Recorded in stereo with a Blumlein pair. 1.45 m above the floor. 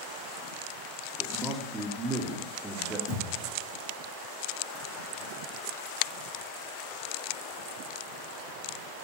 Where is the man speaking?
10° right, 3.5 m.